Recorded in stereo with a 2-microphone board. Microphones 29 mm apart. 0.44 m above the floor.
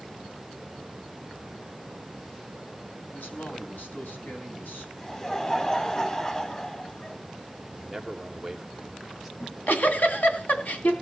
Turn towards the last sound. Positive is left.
turn(degrees=70)  # may be behind; listen again after turning